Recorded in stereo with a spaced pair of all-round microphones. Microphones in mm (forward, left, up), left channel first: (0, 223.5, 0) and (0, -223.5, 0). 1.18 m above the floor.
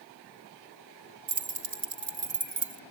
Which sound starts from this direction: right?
Keys jangling, at 1.3 s.